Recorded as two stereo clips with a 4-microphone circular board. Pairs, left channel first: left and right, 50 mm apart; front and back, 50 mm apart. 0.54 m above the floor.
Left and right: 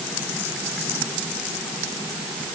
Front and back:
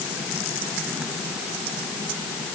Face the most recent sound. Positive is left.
No sound to turn to.